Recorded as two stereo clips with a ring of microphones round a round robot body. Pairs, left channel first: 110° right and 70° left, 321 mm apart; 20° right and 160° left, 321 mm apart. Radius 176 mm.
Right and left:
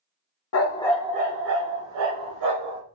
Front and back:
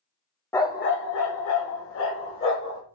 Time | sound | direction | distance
0.5 | a dog barking | 100° right | 0.6 m